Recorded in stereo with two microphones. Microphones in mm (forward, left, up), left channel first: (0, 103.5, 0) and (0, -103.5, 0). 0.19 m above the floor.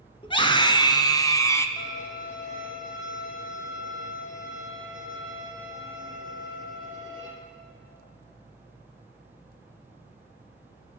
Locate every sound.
0.2 s a scream: 25° left (ahead or behind), 2.5 m; by 1.7 s 15° left (ahead or behind), 1.6 m
1.8 s a violin: 40° left (ahead or behind), 6.5 m